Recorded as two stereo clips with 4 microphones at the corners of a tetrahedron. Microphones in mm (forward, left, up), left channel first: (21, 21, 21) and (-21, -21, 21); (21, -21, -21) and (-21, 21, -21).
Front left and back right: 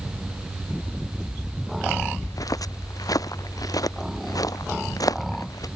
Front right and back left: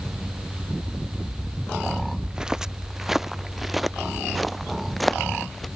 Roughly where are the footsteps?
Ahead left.